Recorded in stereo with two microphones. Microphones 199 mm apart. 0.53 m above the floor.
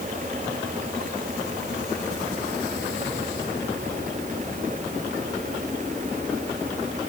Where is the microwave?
No microwave in this recording.